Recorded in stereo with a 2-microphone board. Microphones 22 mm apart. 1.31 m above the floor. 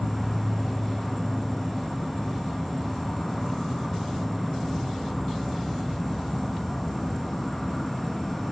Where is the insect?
15° left (ahead or behind), 0.8 m.